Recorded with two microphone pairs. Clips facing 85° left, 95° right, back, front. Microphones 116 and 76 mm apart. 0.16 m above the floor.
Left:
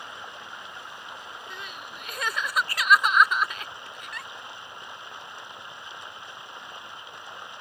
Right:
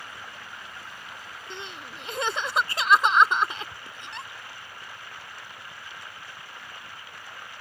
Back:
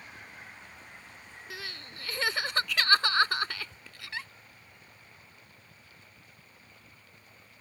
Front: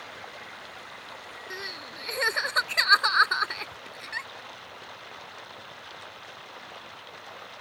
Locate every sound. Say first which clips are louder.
0.0 s running water: left 2 dB, front 6 dB; 15° left
1.5 s crying: right 1 dB, front 3 dB; 45° right